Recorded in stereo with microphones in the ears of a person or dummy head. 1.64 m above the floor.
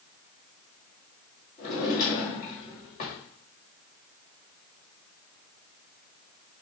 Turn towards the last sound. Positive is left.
turn(degrees=55)  # may be behind; listen again after turning